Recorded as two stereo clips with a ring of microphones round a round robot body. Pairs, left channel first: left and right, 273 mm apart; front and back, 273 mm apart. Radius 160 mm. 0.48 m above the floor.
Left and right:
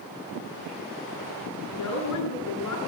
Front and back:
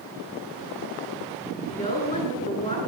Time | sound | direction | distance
1.7 | a woman speaking | 65° left | 8.5 m